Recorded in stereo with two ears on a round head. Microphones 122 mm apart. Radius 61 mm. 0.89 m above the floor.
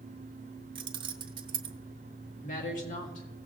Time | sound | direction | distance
0.8 | keys jangling | 35° right (ahead or behind) | 0.9 m
2.4 | a woman speaking | 60° left (ahead or behind) | 1.7 m